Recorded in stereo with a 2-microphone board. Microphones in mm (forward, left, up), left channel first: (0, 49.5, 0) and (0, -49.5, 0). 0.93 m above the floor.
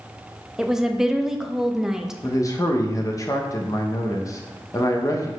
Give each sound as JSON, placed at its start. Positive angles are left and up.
{"t": 0.6, "sound": "a woman speaking", "side_deg": -5, "distance_m": 0.6}
{"t": 2.2, "sound": "a man speaking", "side_deg": 35, "distance_m": 0.9}